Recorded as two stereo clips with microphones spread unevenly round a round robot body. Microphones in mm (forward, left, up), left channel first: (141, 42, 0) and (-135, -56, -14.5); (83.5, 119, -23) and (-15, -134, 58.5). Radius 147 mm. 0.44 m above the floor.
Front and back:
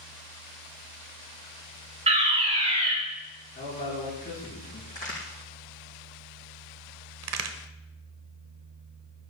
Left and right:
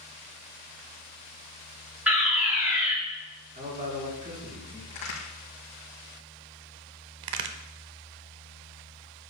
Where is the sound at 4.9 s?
95° left, 4.5 m.